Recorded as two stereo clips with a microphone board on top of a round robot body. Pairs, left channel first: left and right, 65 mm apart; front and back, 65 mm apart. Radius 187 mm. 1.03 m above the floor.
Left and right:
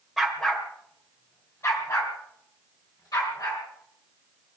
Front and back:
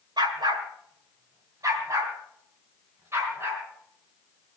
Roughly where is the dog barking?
Behind.